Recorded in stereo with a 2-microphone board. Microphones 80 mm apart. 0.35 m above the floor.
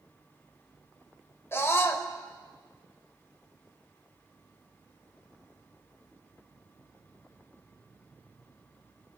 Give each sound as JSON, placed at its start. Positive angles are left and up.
{"t": 1.5, "sound": "a scream", "side_deg": 30, "distance_m": 1.0}